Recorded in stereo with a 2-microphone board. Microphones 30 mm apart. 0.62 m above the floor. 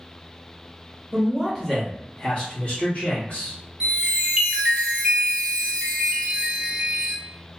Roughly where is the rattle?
I don't hear a rattle.